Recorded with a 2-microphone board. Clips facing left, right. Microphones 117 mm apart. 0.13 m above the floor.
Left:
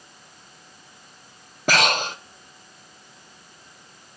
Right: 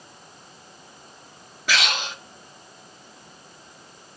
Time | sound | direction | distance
1.7 | breathing | 45° left (ahead or behind) | 0.6 m